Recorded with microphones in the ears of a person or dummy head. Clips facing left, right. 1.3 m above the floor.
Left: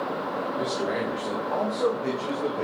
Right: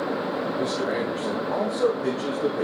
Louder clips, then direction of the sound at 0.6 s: Right 1 dB; centre (ahead or behind).